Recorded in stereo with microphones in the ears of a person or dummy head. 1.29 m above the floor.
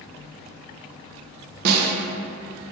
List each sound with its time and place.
1.6 s a snare drum: 50° right (ahead or behind), 0.5 m